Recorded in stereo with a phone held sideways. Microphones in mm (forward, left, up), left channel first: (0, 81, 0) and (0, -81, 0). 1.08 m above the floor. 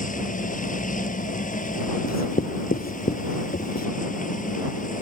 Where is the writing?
80° left.